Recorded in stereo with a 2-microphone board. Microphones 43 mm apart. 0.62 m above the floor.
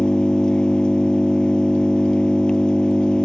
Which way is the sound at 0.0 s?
20° left (ahead or behind).